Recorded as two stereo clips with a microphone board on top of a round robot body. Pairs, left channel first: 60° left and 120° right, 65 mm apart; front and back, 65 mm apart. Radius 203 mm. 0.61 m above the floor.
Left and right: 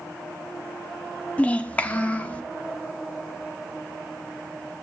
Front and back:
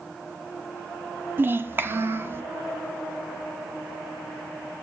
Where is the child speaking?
125° left, 0.9 m; by 2.4 s 130° left, 1.4 m.